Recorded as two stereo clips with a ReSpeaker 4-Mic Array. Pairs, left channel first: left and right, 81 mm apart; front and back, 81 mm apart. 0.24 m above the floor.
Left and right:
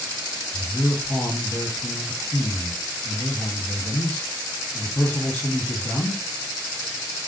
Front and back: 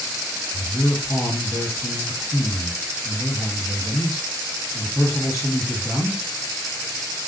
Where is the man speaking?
25° left, 2 m.